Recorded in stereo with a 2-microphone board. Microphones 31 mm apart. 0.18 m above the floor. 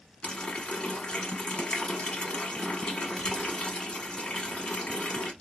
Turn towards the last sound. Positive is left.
turn(degrees=35)  # may be behind; listen again after turning